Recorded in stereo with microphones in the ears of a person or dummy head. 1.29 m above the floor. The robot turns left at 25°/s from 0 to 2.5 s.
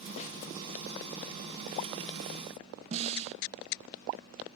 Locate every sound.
0.2 s a snare drum: 30° left (ahead or behind), 2 m; by 0.4 s 35° left (ahead or behind), 2 m
2.9 s a snare drum: 35° right (ahead or behind), 0.7 m